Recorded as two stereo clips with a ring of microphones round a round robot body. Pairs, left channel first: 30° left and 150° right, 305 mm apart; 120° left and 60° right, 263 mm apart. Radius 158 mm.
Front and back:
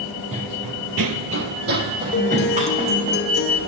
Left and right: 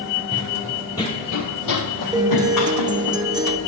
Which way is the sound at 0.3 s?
85° right.